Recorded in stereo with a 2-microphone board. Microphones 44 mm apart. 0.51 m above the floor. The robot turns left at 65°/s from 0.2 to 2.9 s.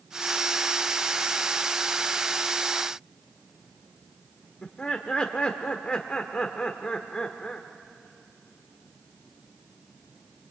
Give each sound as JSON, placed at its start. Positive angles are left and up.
{"t": 4.6, "sound": "laughter", "side_deg": 25, "distance_m": 1.2}